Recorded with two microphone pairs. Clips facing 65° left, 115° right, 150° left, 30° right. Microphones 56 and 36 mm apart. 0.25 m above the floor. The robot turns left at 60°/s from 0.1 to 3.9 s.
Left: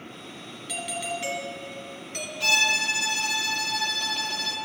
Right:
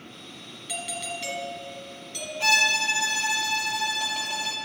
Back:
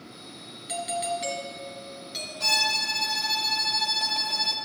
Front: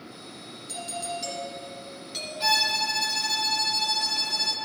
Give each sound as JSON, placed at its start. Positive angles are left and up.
{"t": 0.7, "sound": "a doorbell", "azimuth_deg": 155, "distance_m": 2.5}
{"t": 2.4, "sound": "a violin", "azimuth_deg": -85, "distance_m": 1.6}